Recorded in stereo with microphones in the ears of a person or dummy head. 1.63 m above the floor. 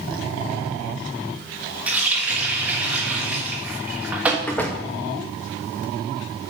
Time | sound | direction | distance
1.9 | a running tap | 10° right (ahead or behind) | 1.2 m
4.5 | a door slam | 5° left (ahead or behind) | 0.6 m